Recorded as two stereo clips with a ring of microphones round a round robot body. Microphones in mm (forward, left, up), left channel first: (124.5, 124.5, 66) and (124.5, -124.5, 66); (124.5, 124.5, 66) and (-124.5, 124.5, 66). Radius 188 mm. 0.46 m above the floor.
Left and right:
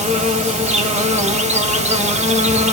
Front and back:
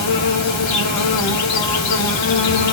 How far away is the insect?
About 1.0 m.